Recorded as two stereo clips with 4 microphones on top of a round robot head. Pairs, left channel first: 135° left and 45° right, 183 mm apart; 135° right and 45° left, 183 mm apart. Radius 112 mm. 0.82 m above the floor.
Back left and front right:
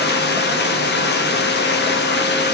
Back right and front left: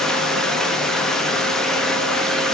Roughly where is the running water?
Behind left.